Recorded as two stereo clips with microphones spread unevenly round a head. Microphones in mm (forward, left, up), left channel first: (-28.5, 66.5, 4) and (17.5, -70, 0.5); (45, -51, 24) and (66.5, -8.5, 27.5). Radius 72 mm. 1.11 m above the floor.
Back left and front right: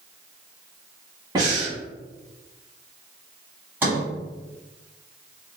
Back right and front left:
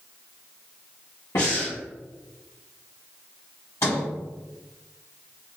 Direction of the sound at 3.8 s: 150° right.